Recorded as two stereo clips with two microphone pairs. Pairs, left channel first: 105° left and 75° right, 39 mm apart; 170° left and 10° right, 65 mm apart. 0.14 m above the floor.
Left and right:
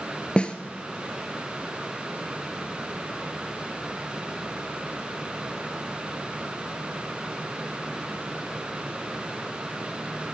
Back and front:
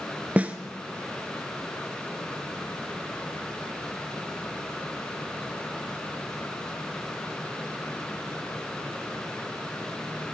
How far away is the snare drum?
About 0.8 m.